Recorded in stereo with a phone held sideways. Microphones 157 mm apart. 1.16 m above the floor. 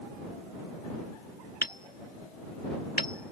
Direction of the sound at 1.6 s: 65° left (ahead or behind).